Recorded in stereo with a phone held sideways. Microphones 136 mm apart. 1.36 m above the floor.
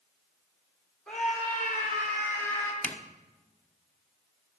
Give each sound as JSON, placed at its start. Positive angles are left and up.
{"t": 1.1, "sound": "a scream", "side_deg": 5, "distance_m": 5.0}
{"t": 2.8, "sound": "a zipper", "side_deg": 10, "distance_m": 0.9}